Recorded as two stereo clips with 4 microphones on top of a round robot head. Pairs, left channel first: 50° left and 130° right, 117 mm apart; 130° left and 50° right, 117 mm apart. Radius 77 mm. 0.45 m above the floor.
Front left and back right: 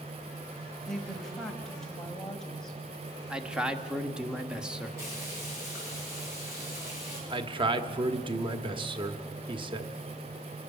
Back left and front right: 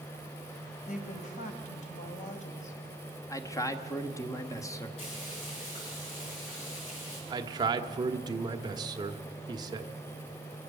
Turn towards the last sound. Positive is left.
turn(degrees=-95)